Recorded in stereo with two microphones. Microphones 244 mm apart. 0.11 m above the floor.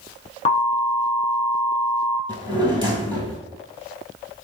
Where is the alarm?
25° left (ahead or behind), 0.8 m.